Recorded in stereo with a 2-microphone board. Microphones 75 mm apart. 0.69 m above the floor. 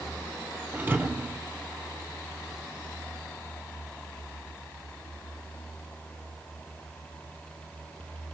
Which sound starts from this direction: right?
A thud, at 0.7 s.